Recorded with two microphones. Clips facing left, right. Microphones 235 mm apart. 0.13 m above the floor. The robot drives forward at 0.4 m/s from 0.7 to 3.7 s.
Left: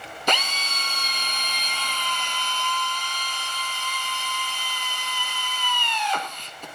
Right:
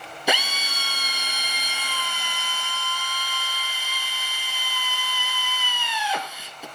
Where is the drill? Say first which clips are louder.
Right 1 dB; 10° right (ahead or behind), 1.4 m.